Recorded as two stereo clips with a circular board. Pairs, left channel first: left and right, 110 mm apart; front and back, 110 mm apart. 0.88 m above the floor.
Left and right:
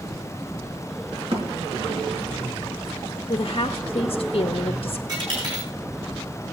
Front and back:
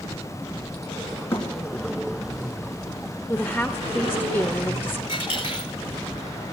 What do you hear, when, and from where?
1.3 s a thud: 65° right, 4 m
3.3 s a woman speaking: 75° left, 0.6 m
5.1 s a dropped coin: 45° right, 5.5 m